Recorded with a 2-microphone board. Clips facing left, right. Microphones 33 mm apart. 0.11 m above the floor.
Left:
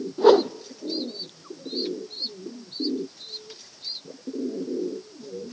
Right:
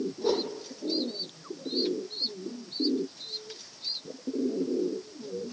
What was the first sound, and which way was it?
A whoosh, 75° left (ahead or behind).